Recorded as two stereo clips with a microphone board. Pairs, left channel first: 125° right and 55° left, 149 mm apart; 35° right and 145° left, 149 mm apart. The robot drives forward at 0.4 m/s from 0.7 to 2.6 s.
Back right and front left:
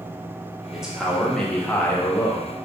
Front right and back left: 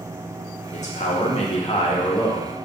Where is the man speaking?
30° right, 1.0 m; by 2.5 s 85° right, 0.7 m.